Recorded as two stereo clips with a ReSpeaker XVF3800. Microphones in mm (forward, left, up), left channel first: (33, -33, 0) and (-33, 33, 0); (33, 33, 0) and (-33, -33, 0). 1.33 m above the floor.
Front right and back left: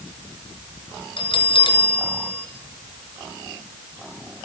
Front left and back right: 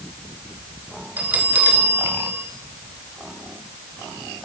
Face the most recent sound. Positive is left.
turn(degrees=-65)